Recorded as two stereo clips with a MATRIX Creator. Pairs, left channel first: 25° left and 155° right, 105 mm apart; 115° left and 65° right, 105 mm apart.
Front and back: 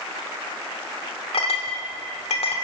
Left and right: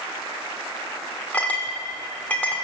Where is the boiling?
I don't hear boiling.